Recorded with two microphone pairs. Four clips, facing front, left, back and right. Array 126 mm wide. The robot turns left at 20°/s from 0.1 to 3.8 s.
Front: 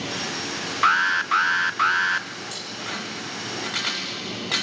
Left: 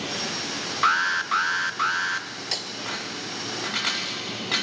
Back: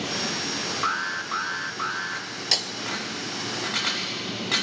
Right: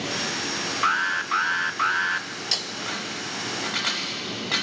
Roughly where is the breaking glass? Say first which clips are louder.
Right 1 dB, back 4 dB; behind.